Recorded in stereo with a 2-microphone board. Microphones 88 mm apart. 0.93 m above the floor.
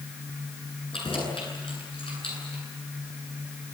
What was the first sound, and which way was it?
Keys jangling, 90° left.